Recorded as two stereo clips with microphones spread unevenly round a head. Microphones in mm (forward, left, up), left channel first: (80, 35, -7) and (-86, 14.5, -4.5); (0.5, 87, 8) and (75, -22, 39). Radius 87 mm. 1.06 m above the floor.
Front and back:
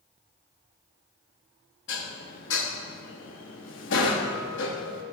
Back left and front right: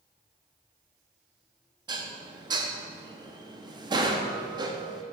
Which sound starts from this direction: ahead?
Dishes clattering, at 1.9 s.